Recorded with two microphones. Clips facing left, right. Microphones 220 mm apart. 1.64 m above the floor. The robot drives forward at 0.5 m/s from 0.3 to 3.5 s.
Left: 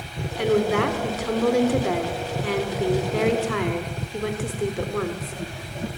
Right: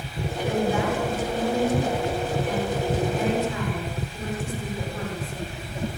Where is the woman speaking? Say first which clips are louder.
Left 4 dB; 75° left (ahead or behind), 5 m; by 5.9 s 85° left, 4.5 m.